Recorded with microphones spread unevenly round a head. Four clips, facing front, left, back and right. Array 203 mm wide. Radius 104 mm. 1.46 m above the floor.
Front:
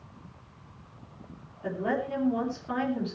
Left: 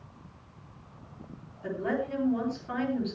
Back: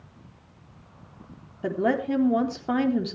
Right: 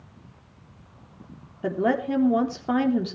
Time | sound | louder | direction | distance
1.6 | a woman speaking | right 7 dB, back 5 dB | 135° right | 3 m